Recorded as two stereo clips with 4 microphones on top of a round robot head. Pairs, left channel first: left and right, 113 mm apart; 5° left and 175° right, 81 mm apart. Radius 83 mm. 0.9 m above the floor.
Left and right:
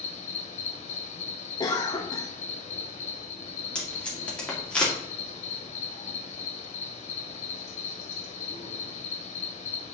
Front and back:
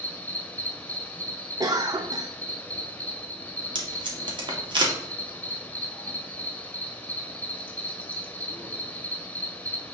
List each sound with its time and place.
0.0 s an insect: 80° left, 1.8 m
1.6 s a cough: 145° left, 0.7 m
3.8 s tape being pulled: 170° left, 2.0 m